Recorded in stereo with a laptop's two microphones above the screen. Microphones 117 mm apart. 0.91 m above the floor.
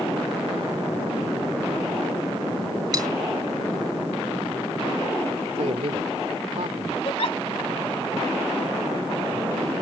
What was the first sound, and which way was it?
Cutlery clinking, 35° right (ahead or behind).